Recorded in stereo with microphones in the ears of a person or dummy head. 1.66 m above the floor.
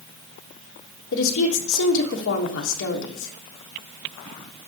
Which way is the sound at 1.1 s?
70° left (ahead or behind).